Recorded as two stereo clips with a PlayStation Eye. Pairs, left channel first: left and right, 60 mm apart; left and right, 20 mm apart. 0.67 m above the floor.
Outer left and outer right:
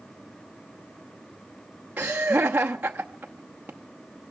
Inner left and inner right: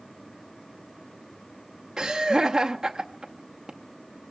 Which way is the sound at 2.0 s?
30° right (ahead or behind).